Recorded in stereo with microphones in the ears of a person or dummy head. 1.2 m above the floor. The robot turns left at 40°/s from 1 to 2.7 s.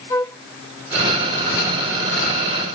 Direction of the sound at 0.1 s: 20° left (ahead or behind).